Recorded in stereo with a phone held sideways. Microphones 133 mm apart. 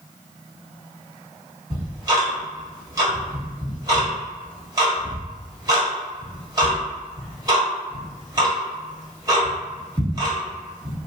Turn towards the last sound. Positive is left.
turn(degrees=-25)  # may be behind; listen again after turning